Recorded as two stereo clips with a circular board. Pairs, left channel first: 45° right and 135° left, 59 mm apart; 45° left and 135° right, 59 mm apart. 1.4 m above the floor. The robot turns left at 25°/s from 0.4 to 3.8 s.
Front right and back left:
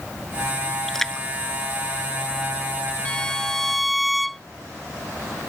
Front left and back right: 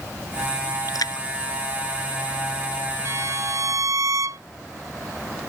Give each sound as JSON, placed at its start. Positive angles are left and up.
{"t": 0.9, "sound": "a splash", "azimuth_deg": 45}
{"t": 3.0, "sound": "a violin", "azimuth_deg": -115}